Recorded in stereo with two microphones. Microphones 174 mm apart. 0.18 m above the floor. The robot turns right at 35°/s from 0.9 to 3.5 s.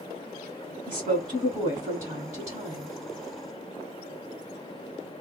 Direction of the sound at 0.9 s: 30° right (ahead or behind).